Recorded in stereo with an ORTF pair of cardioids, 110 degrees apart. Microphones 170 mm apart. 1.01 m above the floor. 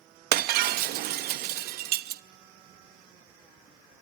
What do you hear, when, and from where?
0.3 s breaking glass: 70° right, 0.6 m